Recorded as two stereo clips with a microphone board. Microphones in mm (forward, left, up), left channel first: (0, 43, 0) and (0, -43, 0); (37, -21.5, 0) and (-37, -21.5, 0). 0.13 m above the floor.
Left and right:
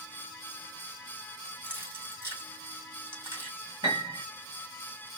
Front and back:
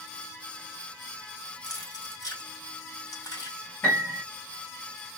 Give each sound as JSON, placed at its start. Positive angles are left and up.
{"t": 1.6, "sound": "keys jangling", "azimuth_deg": -35, "distance_m": 3.0}
{"t": 3.8, "sound": "a piano", "azimuth_deg": -60, "distance_m": 3.0}